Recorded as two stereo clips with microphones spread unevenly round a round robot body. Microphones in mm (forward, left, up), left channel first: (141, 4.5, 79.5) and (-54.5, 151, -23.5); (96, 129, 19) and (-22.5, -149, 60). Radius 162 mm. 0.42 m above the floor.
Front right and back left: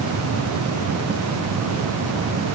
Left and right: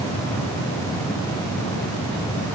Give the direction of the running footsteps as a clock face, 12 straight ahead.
No running footsteps in this recording.